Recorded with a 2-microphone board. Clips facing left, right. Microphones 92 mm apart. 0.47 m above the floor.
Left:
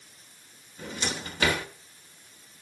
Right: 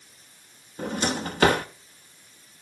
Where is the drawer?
45° right (ahead or behind), 0.9 m.